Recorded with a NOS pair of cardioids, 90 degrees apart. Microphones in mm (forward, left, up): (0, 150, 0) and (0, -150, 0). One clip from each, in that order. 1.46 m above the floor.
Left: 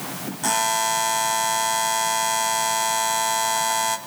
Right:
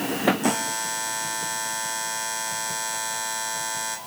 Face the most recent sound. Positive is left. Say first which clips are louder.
# left 5 dB
turn(degrees=30)